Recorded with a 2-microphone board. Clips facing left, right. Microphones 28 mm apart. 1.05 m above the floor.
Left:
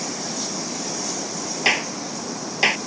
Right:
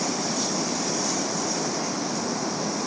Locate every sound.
0.0 s running water: 15° right (ahead or behind)
1.6 s a clap: 75° left (ahead or behind)